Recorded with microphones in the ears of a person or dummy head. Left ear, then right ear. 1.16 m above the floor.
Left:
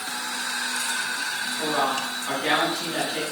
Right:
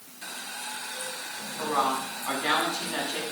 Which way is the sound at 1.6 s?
40° right (ahead or behind).